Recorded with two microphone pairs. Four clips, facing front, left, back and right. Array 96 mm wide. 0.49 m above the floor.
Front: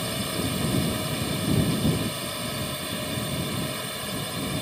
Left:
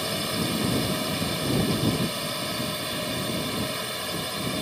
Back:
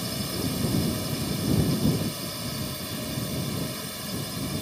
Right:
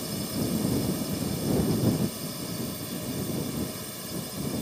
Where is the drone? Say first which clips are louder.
Left 2 dB, front 2 dB; 75° left.